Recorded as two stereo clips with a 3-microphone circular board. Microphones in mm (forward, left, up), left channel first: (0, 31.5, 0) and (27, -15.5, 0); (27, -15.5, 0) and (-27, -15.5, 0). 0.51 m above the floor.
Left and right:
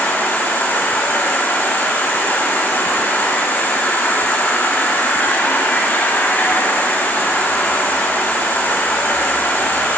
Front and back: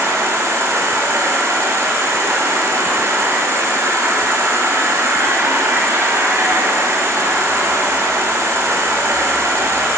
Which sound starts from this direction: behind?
An insect, at 0.0 s.